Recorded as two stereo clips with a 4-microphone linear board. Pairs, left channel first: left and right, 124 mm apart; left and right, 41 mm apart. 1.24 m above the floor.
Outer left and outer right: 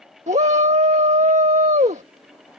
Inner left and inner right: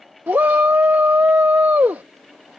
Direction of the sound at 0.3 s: 65° right (ahead or behind).